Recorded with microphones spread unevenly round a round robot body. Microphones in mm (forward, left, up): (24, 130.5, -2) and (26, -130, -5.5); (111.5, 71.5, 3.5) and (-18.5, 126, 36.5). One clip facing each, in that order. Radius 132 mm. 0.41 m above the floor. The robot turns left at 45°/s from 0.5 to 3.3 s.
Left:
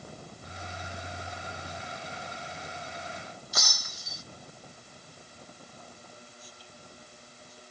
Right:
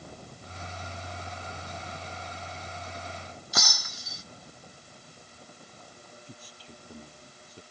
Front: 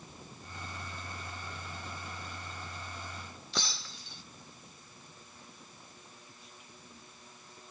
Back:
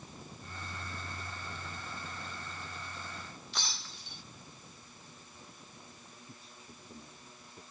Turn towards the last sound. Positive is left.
turn(degrees=-130)